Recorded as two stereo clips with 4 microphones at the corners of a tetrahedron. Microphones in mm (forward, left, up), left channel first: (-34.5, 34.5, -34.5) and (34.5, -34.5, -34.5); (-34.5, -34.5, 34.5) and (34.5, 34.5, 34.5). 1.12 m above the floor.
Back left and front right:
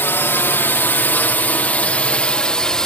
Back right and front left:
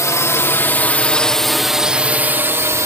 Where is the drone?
170° right; by 2.9 s 60° left.